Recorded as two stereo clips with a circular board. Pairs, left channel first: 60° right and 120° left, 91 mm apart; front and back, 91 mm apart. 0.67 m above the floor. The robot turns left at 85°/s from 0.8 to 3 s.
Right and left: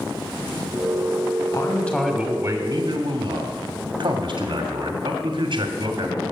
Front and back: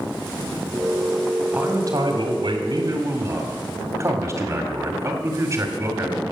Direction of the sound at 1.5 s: 100° right.